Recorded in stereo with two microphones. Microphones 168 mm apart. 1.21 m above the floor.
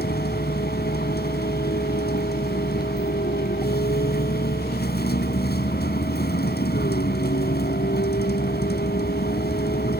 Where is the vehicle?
75° left (ahead or behind).